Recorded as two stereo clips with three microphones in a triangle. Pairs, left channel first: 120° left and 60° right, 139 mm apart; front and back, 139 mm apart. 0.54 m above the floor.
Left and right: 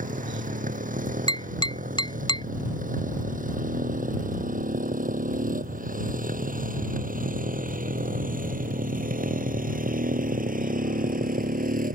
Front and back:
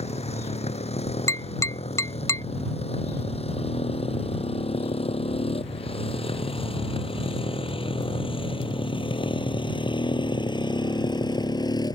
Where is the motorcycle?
40° right; by 12.0 s 60° right.